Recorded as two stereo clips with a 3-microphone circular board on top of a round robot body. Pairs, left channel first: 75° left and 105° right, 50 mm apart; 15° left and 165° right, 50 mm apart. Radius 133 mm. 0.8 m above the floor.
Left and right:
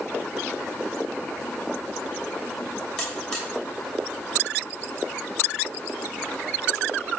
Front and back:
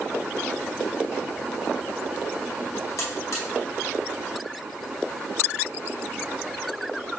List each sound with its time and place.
3.0 s a buzzer: 5° right, 2 m